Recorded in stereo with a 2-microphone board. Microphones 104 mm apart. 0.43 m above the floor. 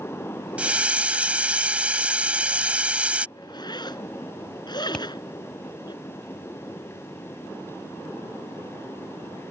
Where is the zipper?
45° left (ahead or behind).